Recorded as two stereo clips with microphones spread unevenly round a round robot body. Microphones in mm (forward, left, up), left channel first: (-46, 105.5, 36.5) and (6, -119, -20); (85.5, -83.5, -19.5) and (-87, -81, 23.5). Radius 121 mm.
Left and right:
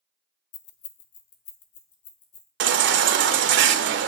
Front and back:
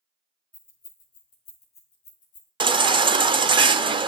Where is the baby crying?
115° right, 0.6 m.